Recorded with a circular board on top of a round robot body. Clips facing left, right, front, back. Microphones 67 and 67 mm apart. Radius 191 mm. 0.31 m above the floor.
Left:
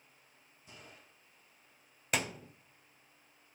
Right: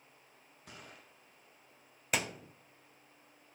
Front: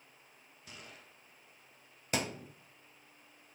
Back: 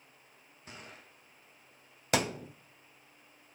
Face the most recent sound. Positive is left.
turn(degrees=180)